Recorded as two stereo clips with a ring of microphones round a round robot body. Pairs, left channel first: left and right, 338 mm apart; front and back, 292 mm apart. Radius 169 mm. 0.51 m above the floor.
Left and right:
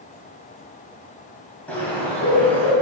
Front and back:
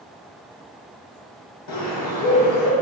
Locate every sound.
1.7 s a bird: 5° left, 1.8 m